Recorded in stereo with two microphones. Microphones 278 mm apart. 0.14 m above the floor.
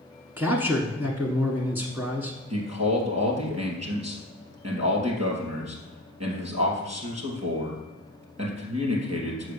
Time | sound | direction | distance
0.4 | a man speaking | 5° right (ahead or behind) | 1.1 m
2.5 | a man speaking | 65° right (ahead or behind) | 2.5 m